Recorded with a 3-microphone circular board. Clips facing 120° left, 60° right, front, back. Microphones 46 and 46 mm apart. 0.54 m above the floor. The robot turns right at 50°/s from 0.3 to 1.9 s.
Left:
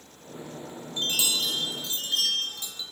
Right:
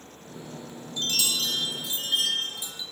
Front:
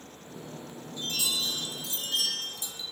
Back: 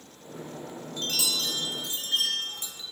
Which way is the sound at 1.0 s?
175° left.